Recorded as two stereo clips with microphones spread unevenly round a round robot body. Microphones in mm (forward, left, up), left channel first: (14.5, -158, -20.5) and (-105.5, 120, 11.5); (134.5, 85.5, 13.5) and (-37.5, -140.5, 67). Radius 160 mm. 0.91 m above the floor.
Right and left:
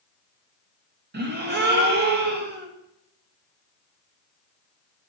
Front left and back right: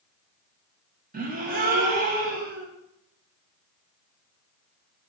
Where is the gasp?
170° left, 1.2 m.